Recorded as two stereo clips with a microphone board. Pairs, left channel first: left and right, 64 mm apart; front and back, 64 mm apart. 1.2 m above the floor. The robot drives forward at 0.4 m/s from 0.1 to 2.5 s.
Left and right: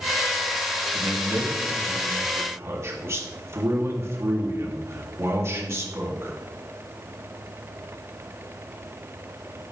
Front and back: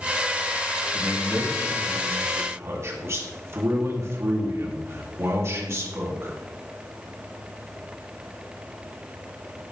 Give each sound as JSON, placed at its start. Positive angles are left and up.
{"t": 0.9, "sound": "a man speaking", "azimuth_deg": -120, "distance_m": 2.5}